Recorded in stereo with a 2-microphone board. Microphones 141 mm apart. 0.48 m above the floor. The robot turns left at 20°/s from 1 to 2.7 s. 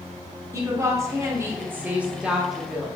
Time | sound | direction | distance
0.5 | a woman speaking | 145° right | 1.1 m